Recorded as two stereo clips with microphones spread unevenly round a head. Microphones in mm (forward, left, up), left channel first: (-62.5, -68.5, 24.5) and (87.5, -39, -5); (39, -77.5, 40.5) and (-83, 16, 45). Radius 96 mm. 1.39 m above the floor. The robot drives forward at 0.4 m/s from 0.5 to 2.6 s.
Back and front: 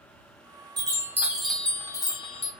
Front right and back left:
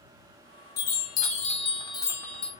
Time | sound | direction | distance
0.8 | a chime | 55° right | 0.7 m